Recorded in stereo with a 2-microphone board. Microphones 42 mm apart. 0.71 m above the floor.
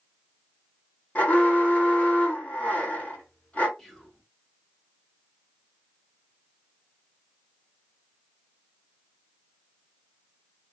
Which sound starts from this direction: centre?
Whispering, at 3.8 s.